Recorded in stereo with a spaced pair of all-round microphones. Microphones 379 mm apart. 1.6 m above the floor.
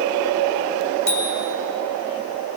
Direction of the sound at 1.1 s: 75° left (ahead or behind).